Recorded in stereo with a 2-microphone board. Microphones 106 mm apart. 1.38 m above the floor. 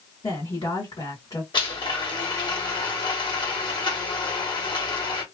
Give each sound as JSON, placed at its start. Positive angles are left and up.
{"t": 0.2, "sound": "a woman speaking", "side_deg": 45, "distance_m": 1.4}
{"t": 1.5, "sound": "a blender", "side_deg": 45, "distance_m": 1.2}